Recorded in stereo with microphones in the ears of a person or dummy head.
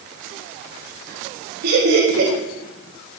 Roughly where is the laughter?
Right.